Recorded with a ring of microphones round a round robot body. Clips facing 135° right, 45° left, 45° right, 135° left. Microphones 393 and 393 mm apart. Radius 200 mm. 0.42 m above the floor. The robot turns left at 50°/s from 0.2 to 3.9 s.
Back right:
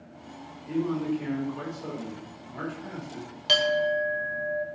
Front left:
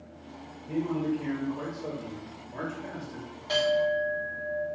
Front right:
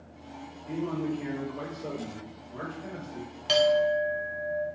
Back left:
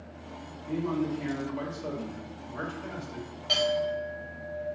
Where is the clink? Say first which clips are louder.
Even, front right 6 dB; 105° right, 0.9 m; by 4.7 s 130° right, 0.9 m.